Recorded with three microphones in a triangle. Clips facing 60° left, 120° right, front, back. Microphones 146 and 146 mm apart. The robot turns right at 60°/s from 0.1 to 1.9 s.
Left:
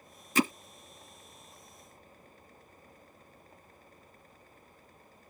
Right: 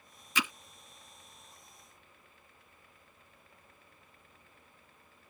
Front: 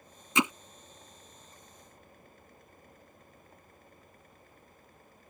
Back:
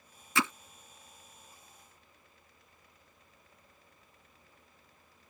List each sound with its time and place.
0.3 s hammering: 60° left; by 0.5 s 70° left